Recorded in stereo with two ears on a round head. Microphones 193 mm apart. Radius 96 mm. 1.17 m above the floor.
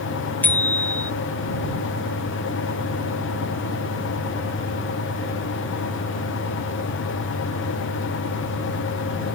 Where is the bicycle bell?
10° left (ahead or behind).